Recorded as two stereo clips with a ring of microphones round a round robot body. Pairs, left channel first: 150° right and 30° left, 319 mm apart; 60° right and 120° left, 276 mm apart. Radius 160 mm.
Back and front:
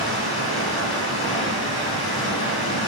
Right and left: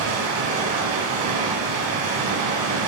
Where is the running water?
135° left, 0.7 m.